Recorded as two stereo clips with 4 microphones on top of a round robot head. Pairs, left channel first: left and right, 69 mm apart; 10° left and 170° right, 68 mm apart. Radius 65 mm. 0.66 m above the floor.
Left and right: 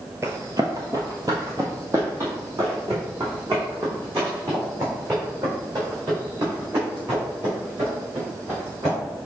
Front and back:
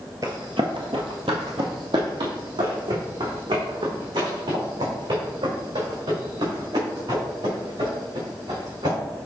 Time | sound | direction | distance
0.2 | running footsteps | 145° right | 0.7 m